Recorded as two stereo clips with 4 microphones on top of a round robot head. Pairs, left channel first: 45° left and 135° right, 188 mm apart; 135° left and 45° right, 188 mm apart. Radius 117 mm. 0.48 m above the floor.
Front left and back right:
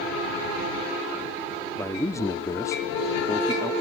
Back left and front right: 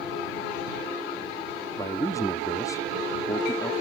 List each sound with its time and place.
1.8 s a man speaking: 90° left